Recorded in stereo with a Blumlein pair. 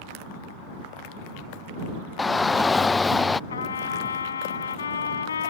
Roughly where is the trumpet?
Left.